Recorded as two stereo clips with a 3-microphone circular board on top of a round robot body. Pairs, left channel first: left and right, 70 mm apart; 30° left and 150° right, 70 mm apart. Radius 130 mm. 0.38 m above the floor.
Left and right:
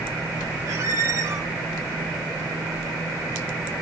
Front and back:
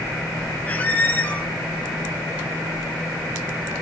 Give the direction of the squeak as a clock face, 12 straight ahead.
1 o'clock.